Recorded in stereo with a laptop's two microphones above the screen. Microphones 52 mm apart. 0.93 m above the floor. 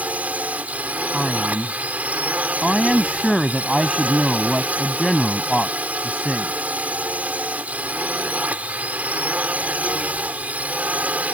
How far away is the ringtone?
I don't hear a ringtone.